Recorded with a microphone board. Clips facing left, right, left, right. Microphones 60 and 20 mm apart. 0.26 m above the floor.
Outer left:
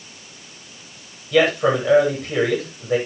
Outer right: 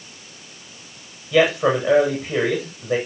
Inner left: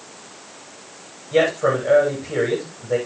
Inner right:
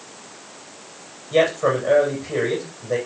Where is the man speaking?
10° right (ahead or behind), 10 m.